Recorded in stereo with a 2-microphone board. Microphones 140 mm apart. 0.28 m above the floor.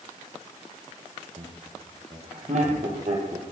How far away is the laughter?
About 7.5 m.